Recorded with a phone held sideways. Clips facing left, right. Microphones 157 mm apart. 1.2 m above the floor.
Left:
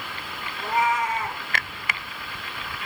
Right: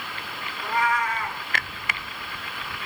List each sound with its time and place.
0.6 s a cat meowing: 20° left (ahead or behind), 3 m